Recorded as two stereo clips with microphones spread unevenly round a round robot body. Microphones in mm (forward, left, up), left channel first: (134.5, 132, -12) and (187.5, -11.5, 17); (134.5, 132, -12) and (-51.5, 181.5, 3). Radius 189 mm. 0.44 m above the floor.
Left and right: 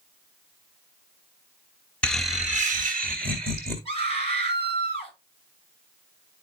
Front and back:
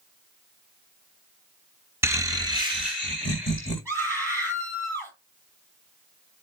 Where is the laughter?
100° left, 0.7 m; by 3.8 s 130° right, 1.3 m.